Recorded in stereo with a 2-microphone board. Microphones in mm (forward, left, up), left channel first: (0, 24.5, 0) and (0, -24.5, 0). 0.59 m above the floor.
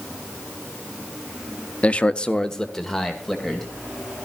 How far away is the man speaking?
About 0.6 m.